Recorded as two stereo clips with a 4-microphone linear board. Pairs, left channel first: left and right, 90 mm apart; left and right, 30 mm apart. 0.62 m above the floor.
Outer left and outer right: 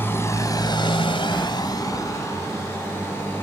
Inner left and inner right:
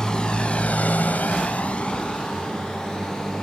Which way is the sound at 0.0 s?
25° left (ahead or behind).